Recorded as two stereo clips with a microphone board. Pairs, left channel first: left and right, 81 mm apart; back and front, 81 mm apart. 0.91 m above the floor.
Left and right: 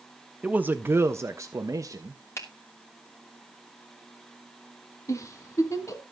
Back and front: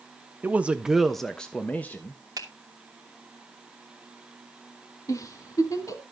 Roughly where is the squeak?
I don't hear a squeak.